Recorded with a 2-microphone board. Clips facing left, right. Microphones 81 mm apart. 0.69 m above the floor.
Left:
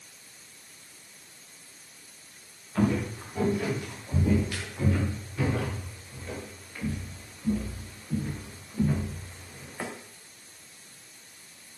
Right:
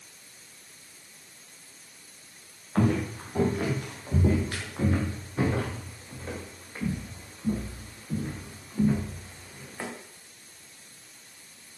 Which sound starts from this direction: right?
Footsteps, at 2.8 s.